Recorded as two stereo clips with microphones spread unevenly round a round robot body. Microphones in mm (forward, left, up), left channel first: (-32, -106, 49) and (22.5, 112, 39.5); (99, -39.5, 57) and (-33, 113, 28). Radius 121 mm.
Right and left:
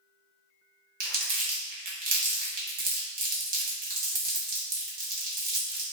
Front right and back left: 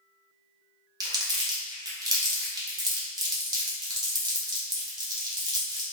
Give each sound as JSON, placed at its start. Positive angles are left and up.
{"t": 1.0, "sound": "crumpling", "azimuth_deg": 80, "distance_m": 0.9}